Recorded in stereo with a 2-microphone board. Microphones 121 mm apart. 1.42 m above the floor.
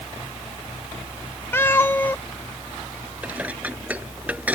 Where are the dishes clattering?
10° right (ahead or behind).